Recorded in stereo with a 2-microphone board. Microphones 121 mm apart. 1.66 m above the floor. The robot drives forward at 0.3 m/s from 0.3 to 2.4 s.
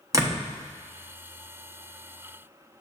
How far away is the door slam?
About 1.1 m.